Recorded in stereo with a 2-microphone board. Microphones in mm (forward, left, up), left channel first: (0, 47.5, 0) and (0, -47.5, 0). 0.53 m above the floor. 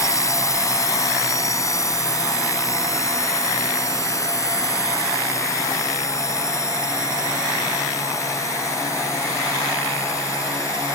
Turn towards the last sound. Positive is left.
turn(degrees=35)  # may be behind; listen again after turning